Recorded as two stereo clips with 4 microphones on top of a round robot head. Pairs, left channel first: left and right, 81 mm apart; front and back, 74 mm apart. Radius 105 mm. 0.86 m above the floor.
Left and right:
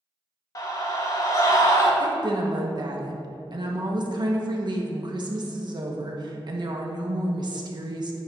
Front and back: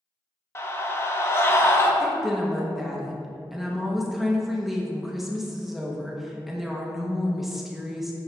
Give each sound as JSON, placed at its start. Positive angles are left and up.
{"t": 0.6, "sound": "a scream", "azimuth_deg": 50, "distance_m": 1.9}
{"t": 2.0, "sound": "a woman speaking", "azimuth_deg": -95, "distance_m": 1.6}